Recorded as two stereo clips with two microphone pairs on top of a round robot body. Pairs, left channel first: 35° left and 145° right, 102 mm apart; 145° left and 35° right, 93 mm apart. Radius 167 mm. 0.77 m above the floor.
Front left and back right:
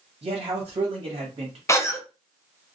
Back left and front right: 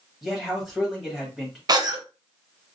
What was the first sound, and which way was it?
A man speaking, 130° right.